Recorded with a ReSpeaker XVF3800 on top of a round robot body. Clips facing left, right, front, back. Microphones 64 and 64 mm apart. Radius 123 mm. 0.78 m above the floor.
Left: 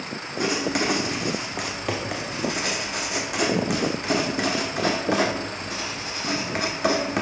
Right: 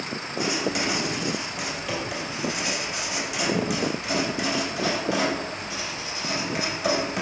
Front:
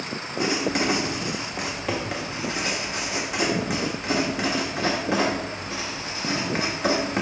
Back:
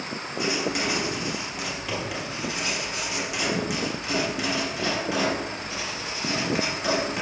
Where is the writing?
50° left, 1.3 m.